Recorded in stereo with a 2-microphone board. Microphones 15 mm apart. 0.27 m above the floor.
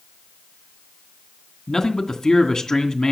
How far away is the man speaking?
About 2 m.